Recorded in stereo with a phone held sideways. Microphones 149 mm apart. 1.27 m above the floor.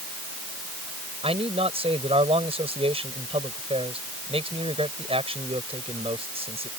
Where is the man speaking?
45° right (ahead or behind).